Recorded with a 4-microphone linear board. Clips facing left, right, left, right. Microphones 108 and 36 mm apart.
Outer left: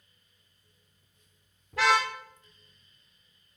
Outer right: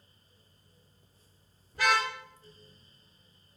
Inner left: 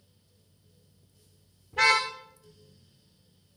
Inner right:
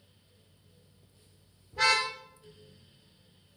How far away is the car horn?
About 9 m.